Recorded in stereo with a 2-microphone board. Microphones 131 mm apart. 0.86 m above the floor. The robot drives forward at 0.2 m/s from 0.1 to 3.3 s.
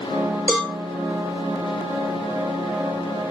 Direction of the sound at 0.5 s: Centre (ahead or behind).